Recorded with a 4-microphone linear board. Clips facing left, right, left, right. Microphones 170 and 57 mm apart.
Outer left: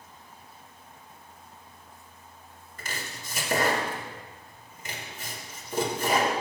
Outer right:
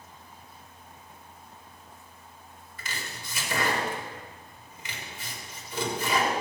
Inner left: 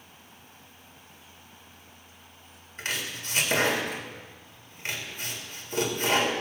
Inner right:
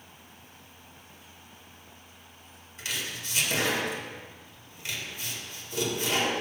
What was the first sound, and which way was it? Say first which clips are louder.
Chopping: outer left 1 dB, inner left 2 dB; 45° left (ahead or behind).